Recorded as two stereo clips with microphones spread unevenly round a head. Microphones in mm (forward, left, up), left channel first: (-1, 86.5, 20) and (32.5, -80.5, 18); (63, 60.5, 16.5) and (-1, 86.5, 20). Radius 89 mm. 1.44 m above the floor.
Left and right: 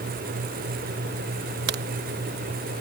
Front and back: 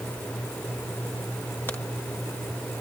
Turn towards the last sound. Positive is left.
turn(degrees=-95)